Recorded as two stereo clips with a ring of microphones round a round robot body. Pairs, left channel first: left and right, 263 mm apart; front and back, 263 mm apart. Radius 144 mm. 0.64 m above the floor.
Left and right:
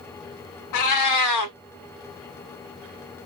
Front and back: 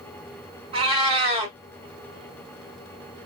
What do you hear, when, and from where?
0.7 s a cat meowing: 110° left, 0.7 m